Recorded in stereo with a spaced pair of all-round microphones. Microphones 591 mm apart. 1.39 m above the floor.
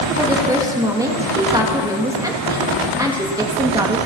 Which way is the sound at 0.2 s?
5° right (ahead or behind).